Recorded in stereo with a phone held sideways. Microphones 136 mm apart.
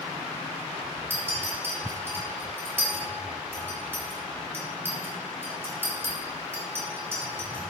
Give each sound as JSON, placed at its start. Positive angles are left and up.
{"t": 1.1, "sound": "a clink", "side_deg": -15, "distance_m": 0.7}